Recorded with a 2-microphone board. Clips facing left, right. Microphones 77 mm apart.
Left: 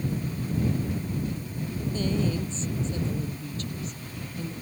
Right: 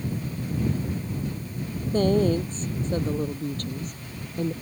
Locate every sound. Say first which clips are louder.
1.9 s a woman speaking: right 8 dB; 50° right (ahead or behind)